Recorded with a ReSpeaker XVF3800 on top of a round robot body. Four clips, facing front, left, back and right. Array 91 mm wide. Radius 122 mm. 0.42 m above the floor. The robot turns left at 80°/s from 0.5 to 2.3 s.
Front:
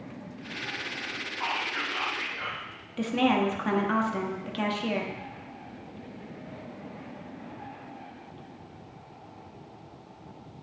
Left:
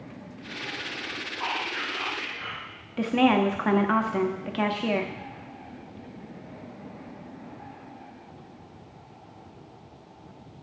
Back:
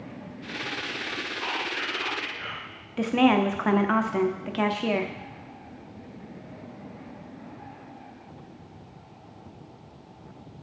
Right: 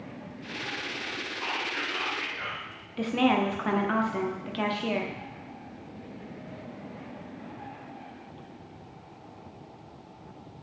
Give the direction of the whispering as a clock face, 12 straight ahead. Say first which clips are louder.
Left 2 dB, front 2 dB; 11 o'clock.